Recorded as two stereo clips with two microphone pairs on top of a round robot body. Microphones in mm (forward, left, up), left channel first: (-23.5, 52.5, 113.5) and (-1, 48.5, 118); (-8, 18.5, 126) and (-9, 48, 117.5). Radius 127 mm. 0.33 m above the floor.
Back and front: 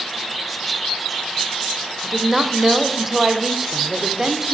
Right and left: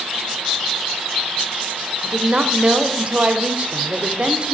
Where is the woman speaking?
65° left, 1.6 m.